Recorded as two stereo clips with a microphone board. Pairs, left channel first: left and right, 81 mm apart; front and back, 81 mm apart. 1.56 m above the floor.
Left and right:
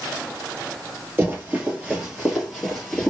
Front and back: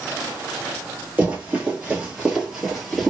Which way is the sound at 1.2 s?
130° right.